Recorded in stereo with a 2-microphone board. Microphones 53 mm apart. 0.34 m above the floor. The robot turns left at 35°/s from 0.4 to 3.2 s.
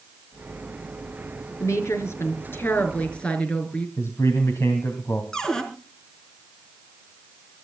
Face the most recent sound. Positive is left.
turn(degrees=15)  # may be behind; listen again after turning